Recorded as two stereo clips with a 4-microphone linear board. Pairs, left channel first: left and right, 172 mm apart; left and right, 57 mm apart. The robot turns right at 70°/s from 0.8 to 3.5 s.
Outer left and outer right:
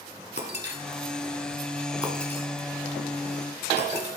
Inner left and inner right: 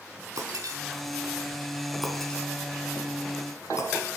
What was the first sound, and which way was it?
Breaking glass, 80° right.